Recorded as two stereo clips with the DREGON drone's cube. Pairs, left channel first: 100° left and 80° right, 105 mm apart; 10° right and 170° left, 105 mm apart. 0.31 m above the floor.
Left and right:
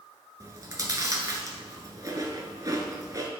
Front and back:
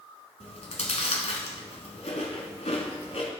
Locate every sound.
0.4 s chewing: 20° right, 1.2 m